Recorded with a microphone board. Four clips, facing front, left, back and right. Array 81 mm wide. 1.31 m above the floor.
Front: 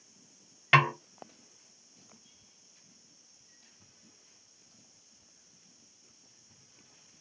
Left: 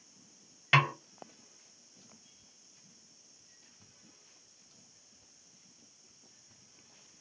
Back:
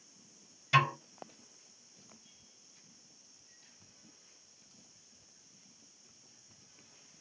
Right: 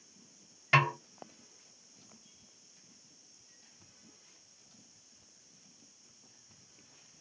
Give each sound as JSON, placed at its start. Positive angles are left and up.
{"t": 0.7, "sound": "a snare drum", "azimuth_deg": 10, "distance_m": 0.8}